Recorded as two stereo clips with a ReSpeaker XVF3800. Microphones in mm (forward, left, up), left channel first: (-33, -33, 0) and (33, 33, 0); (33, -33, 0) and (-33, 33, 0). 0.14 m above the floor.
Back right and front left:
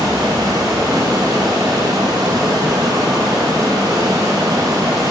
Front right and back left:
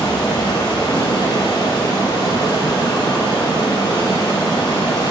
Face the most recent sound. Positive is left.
turn(degrees=-5)